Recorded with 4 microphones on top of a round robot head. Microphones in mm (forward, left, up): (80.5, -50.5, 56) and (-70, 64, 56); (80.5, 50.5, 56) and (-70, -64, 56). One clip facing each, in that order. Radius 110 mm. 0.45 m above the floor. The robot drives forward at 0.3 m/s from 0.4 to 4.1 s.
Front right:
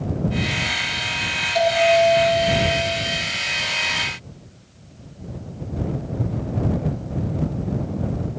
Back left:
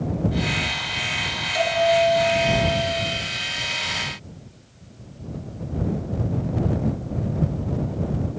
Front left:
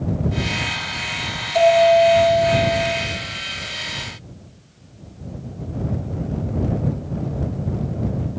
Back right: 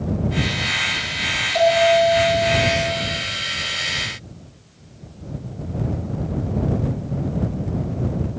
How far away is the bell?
About 8 m.